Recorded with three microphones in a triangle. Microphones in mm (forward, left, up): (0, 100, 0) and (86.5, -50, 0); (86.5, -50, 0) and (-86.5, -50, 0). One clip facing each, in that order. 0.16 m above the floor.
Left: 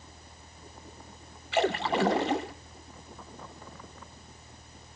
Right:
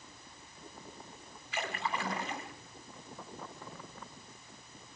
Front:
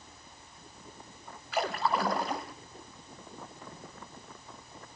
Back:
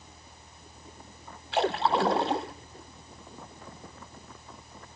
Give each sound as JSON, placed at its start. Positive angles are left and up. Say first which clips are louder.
{"t": 1.5, "sound": "a splash", "louder": "left 11 dB, back 5 dB", "azimuth_deg": 120, "distance_m": 0.9}